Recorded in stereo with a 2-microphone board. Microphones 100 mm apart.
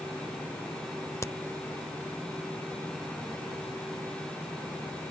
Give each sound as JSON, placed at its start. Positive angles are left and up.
{"t": 1.2, "sound": "a crack", "side_deg": 30}